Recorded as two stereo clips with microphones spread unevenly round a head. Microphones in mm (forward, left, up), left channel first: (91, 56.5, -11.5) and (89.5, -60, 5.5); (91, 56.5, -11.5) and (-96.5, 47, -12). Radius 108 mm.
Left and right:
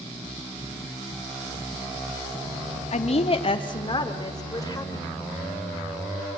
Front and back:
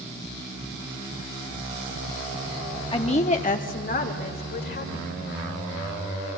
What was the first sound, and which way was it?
A woman speaking, 65° left.